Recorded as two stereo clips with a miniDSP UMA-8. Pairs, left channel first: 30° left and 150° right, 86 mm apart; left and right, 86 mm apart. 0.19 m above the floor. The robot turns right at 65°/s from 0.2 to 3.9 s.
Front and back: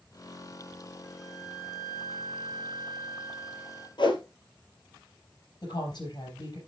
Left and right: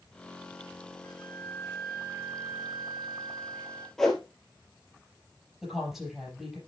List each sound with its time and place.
1.0 s a flute: 135° left, 4.5 m; by 3.9 s 40° right, 4.5 m
4.0 s a whoosh: 5° left, 2 m
5.6 s a woman speaking: 5° right, 5.5 m